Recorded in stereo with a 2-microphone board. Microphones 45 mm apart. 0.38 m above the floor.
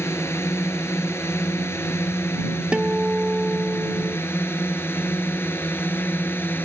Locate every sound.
0.0 s a drone: 70° left (ahead or behind); by 6.7 s 50° left (ahead or behind)
2.7 s a guitar: 20° right (ahead or behind)